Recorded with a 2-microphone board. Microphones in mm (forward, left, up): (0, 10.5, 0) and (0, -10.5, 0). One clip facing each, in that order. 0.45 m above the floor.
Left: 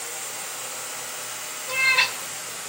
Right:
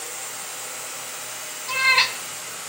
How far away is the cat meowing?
About 1.7 m.